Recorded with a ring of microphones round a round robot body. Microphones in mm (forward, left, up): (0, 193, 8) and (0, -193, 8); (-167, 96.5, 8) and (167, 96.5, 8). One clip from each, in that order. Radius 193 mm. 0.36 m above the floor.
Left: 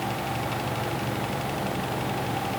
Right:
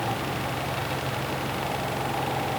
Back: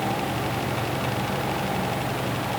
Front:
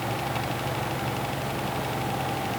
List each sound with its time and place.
Only background noise.